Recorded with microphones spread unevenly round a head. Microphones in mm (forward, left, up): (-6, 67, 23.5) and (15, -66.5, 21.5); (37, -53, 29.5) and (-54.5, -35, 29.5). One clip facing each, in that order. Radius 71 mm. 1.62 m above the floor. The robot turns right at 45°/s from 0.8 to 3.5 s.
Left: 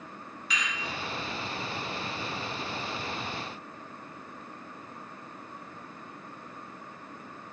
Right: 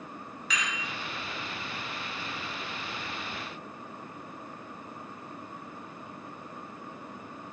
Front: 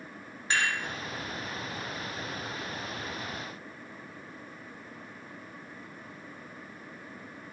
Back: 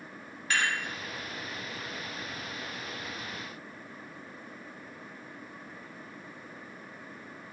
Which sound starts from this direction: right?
Dishes clattering, at 0.5 s.